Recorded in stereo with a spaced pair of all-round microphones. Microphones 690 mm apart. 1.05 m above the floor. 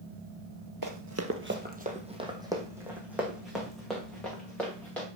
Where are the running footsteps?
30° right (ahead or behind), 1.1 m; by 5.1 s centre (ahead or behind), 5.5 m.